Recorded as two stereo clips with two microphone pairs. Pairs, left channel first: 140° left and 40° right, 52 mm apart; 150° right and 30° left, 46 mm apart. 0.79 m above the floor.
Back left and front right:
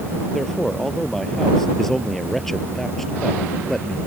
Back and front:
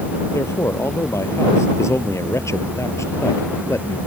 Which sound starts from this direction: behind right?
A man speaking, at 0.3 s.